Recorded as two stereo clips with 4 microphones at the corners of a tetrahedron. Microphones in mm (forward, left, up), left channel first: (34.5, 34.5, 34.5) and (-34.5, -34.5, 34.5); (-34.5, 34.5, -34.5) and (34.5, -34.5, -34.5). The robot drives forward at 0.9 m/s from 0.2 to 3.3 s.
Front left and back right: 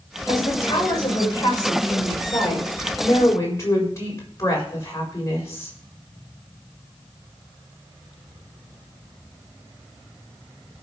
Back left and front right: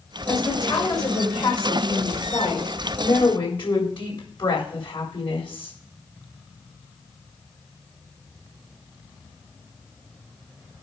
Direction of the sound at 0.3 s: 85° left.